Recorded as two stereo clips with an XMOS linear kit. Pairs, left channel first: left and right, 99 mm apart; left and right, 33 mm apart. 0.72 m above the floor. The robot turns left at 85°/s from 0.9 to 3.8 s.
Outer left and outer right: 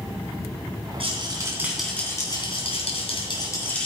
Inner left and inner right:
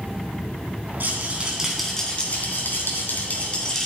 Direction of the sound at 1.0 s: 115° right.